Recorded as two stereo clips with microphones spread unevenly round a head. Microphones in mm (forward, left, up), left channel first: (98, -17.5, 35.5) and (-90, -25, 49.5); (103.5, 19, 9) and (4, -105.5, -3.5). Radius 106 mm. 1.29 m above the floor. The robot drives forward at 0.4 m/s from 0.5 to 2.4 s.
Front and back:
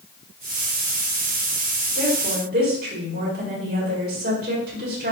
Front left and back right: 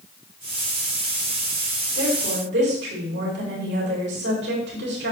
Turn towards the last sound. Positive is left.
turn(degrees=-140)